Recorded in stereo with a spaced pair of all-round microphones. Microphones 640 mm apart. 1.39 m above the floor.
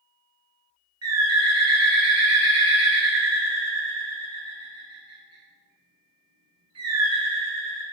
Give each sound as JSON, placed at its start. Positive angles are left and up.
{"t": 1.0, "sound": "a bird", "side_deg": -25, "distance_m": 0.6}